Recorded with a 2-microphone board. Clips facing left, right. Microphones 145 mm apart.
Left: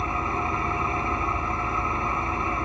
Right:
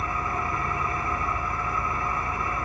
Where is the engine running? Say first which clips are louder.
Left 2 dB; 25° left (ahead or behind), 1.1 m.